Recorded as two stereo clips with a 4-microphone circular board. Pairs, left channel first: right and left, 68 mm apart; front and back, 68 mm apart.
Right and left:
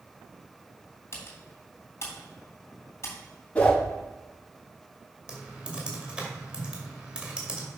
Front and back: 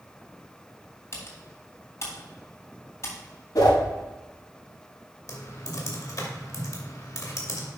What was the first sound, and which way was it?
Typing on a keyboard, 45° right.